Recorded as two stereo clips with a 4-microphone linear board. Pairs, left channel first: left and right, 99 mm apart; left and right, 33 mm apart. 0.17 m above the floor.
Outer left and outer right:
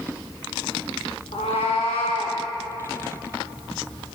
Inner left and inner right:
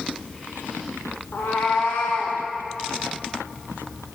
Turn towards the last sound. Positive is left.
turn(degrees=80)